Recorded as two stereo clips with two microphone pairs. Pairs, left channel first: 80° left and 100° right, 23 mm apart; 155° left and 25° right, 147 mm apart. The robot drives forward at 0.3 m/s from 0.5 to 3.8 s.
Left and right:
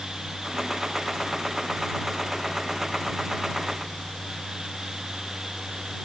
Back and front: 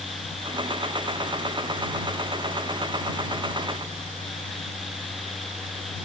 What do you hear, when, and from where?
Only background noise.